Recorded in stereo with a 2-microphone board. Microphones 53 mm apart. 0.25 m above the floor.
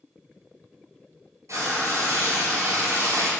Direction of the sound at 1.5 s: 75° right (ahead or behind).